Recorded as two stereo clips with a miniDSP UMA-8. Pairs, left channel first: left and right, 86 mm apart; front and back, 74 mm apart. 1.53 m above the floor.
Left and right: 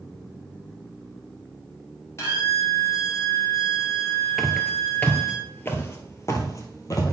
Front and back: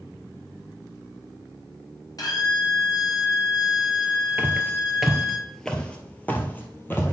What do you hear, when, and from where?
2.2 s a violin: 35° left, 4 m
4.4 s footsteps: straight behind, 1.6 m; by 7.1 s 50° left, 2.5 m